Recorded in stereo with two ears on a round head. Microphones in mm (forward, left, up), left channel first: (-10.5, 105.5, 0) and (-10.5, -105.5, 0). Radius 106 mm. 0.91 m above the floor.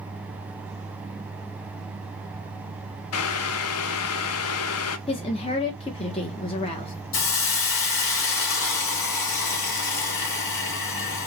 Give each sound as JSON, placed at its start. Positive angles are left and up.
{"t": 3.1, "sound": "boiling", "side_deg": 70, "distance_m": 0.5}
{"t": 5.1, "sound": "a woman speaking", "side_deg": 25, "distance_m": 0.7}
{"t": 7.1, "sound": "a hiss", "side_deg": 60, "distance_m": 1.4}